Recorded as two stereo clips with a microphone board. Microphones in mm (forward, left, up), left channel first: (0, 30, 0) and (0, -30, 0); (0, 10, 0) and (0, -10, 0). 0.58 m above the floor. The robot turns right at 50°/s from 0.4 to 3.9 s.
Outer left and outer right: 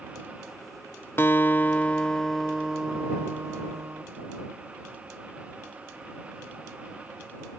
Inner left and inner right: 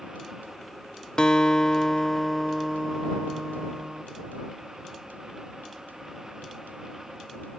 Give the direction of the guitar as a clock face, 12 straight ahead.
8 o'clock.